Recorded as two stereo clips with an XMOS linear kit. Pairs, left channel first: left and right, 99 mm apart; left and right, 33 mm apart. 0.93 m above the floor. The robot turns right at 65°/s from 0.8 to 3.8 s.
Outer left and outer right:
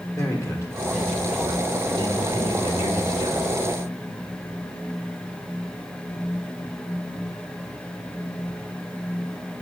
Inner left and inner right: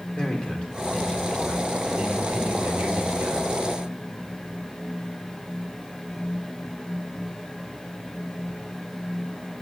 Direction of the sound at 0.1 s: 145° left.